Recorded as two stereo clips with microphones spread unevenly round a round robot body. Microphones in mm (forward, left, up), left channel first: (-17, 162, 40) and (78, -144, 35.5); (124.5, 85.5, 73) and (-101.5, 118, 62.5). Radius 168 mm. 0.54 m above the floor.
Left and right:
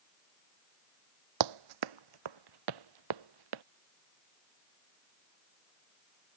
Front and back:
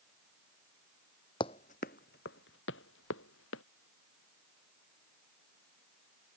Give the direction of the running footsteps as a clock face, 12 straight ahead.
3 o'clock.